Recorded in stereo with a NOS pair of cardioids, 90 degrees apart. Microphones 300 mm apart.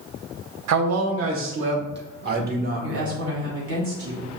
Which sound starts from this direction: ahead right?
A woman speaking, at 2.8 s.